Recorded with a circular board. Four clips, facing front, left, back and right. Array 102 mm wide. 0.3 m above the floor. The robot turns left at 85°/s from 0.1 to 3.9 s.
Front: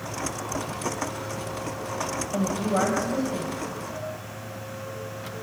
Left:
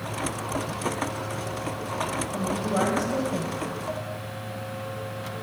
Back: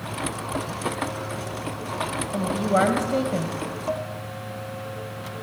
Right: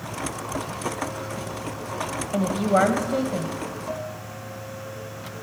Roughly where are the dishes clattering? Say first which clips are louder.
Right 1 dB, back 7 dB; behind.